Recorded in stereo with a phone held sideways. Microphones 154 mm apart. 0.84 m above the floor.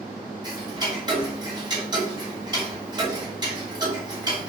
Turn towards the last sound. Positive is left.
turn(degrees=-25)  # may be behind; listen again after turning